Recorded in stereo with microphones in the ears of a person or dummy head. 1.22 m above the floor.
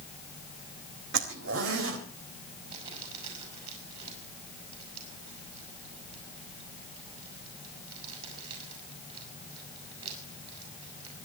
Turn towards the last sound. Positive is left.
turn(degrees=-40)  # may be behind; listen again after turning